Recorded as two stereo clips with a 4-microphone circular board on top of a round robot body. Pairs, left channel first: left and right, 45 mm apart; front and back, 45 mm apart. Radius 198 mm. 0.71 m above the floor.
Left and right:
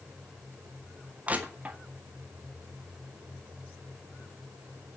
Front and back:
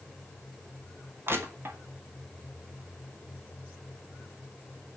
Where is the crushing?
150° right, 2.5 m.